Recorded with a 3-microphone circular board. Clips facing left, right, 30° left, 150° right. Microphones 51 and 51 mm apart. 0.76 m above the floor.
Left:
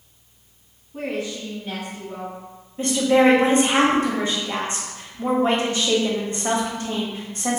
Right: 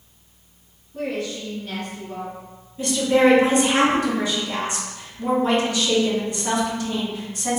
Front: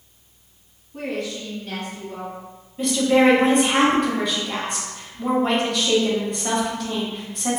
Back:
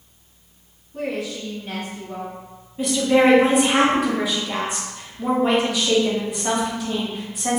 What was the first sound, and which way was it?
A woman speaking, 120° left.